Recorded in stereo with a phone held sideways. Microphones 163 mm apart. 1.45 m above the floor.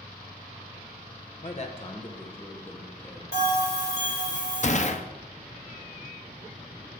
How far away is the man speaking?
About 0.8 m.